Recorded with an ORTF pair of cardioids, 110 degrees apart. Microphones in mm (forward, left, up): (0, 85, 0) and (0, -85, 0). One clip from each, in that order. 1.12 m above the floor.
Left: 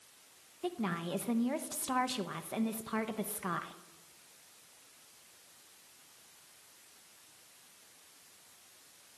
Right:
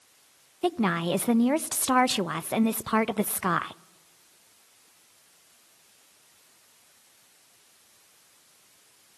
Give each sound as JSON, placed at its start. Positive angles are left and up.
{"t": 0.6, "sound": "a woman speaking", "azimuth_deg": -55, "distance_m": 0.8}